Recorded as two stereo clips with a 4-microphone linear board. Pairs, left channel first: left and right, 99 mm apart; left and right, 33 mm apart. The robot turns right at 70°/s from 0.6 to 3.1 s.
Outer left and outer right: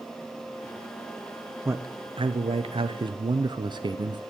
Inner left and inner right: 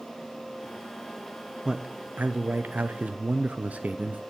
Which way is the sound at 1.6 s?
155° right.